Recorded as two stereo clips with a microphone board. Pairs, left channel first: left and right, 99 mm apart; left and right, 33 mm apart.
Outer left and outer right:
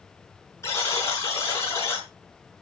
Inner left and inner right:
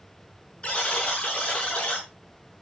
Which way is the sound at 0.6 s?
30° left (ahead or behind).